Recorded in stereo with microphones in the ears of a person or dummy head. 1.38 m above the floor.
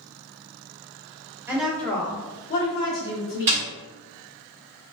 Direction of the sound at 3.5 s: 10° right (ahead or behind).